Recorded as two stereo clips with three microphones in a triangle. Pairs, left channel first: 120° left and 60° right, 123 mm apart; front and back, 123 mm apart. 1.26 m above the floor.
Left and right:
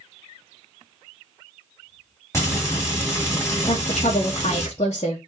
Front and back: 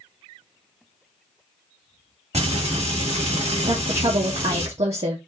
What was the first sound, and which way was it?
Frying, 175° right.